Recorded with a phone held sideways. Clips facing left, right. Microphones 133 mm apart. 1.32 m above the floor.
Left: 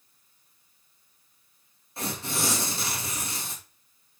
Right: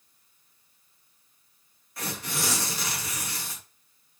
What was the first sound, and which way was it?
Tearing paper, 25° left (ahead or behind).